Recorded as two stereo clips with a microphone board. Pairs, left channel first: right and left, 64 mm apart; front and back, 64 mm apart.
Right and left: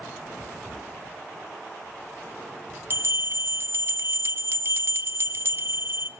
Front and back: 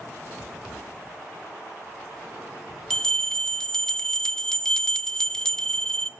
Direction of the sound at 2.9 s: 75° left.